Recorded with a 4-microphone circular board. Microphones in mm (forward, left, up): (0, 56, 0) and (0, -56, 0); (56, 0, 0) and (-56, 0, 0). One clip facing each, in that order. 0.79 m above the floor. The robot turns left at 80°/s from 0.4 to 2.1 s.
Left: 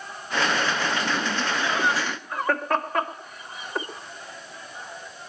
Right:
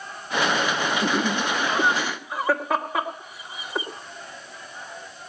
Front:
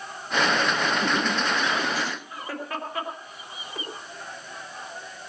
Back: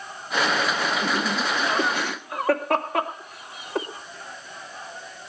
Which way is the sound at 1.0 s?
85° right.